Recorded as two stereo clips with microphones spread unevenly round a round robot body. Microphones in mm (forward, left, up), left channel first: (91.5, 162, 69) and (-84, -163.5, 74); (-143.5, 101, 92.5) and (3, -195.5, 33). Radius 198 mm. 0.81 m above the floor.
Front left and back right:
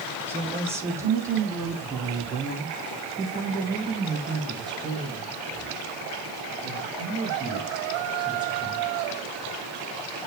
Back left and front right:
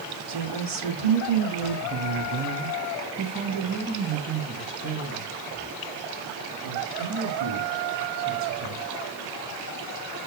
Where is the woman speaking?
35° right, 1.4 m; by 8.8 s 40° right, 5.5 m.